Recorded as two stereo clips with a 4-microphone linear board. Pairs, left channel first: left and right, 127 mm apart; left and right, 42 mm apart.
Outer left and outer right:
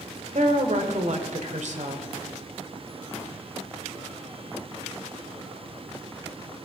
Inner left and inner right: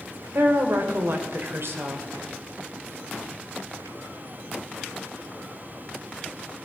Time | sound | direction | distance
0.3 | a woman speaking | 65° right (ahead or behind) | 2 m